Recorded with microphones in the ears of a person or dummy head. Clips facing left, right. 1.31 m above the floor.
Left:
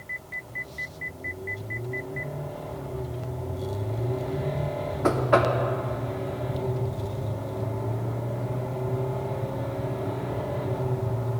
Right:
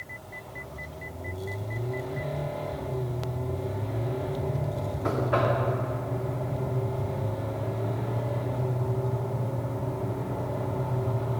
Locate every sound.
5.0 s knocking: 55° left (ahead or behind), 0.6 m